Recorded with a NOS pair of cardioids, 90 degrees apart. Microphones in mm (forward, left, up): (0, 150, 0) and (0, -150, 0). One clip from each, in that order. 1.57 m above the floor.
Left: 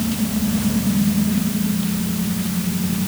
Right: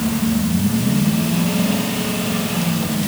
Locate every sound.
Only background noise.